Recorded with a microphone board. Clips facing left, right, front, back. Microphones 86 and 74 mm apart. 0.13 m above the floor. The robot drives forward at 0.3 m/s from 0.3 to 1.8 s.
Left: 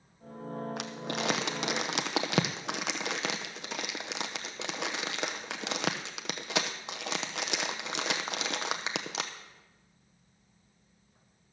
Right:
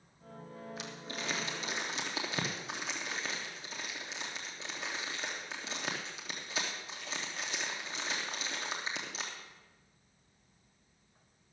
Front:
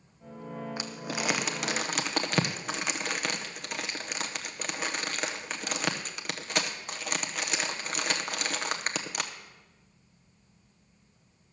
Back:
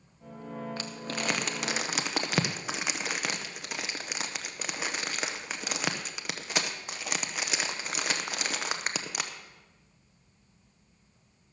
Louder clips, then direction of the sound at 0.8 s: Left 8 dB, front 1 dB; 75° left.